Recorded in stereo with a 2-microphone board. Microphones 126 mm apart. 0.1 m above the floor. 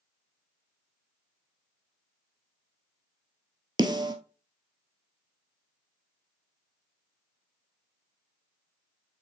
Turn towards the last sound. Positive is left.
turn(degrees=-35)  # may be behind; listen again after turning